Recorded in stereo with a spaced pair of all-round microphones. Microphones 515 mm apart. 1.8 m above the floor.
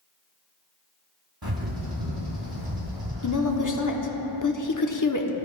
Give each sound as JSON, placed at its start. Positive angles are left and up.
{"t": 1.4, "sound": "a bird", "side_deg": -50, "distance_m": 3.0}
{"t": 3.2, "sound": "a woman speaking", "side_deg": 35, "distance_m": 0.9}